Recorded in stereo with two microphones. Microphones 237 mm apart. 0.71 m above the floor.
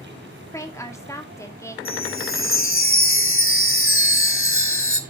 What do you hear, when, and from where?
0.5 s a woman speaking: 10° left (ahead or behind), 1.5 m
1.9 s a chime: 60° left (ahead or behind), 1.1 m